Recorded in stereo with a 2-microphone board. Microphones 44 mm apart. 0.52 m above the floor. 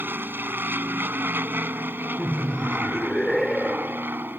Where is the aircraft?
50° right (ahead or behind).